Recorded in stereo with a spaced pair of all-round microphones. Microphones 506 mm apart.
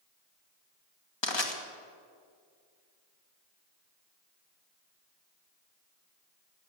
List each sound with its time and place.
1.2 s crushing: 55° left (ahead or behind), 1.7 m